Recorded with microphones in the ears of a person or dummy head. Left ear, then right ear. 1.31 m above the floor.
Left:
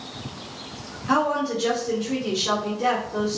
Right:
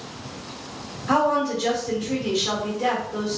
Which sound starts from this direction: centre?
A woman speaking, at 1.1 s.